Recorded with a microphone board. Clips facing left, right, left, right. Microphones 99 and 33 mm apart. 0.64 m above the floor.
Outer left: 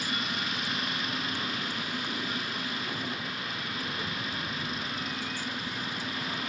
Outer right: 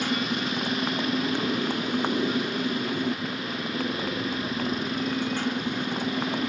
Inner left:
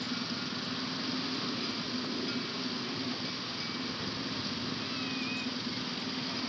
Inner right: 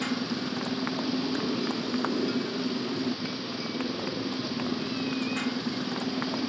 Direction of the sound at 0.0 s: 65° right (ahead or behind).